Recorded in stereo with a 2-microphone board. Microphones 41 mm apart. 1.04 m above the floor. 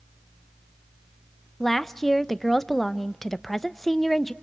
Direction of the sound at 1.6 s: 5° left (ahead or behind).